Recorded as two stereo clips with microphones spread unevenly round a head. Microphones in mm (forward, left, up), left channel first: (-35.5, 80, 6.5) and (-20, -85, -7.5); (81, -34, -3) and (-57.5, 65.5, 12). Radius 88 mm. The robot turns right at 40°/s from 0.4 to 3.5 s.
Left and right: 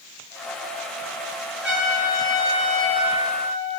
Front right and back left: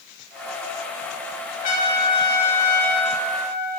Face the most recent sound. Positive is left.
turn(degrees=75)